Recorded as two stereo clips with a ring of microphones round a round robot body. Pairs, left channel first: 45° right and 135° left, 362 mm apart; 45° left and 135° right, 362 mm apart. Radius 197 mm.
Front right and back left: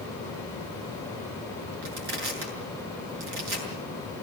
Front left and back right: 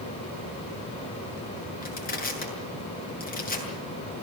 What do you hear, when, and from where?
1.8 s crushing: 110° left, 7 m